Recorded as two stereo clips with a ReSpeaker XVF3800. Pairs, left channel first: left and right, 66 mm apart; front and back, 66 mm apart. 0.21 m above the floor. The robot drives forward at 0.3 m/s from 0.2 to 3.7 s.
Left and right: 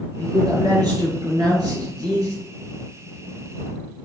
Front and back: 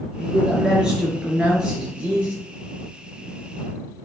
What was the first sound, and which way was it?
A man speaking, 100° right.